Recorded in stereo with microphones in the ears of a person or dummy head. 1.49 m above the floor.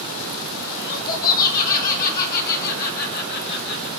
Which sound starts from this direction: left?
Laughter, at 0.8 s.